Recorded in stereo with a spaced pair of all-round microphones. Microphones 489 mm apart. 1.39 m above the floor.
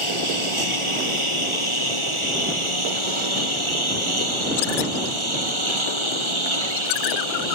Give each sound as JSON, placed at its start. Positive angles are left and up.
{"t": 0.0, "sound": "a lawn mower", "side_deg": -80}